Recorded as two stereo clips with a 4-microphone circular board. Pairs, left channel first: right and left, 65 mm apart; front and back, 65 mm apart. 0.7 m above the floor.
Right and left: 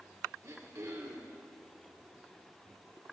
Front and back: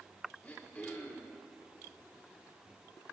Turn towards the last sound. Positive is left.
turn(degrees=65)